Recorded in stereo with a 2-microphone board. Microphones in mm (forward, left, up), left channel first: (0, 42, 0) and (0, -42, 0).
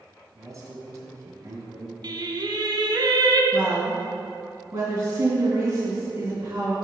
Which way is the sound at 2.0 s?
60° right (ahead or behind).